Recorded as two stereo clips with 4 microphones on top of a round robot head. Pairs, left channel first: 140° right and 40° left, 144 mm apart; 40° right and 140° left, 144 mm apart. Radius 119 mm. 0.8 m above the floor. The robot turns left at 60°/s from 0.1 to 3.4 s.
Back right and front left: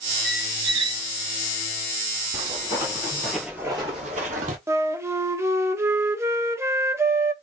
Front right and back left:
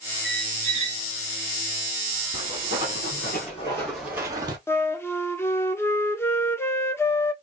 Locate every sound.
0.2 s a squeak: 130° left, 1.2 m; by 1.0 s 80° left, 1.2 m
2.3 s footsteps: 10° right, 1.7 m; by 4.6 s 80° left, 1.2 m
4.7 s a flute: 5° left, 1.0 m